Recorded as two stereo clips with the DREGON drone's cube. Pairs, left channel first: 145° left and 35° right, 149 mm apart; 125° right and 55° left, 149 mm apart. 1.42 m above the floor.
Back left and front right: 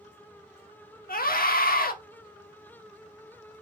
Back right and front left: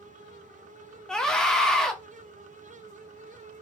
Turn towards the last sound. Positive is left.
turn(degrees=150)